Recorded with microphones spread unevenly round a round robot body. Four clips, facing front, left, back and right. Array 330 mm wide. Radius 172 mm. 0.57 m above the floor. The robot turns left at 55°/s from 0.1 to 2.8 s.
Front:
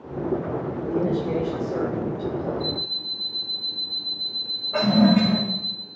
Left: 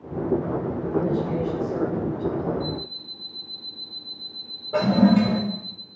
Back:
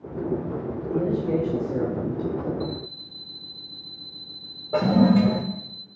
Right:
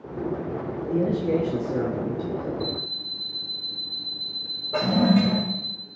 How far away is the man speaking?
About 5 m.